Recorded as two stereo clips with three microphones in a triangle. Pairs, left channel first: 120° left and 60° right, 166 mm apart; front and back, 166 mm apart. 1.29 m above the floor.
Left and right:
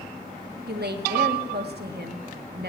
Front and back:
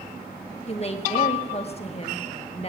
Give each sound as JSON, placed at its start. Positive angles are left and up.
{"t": 0.7, "sound": "a woman speaking", "azimuth_deg": -50, "distance_m": 1.6}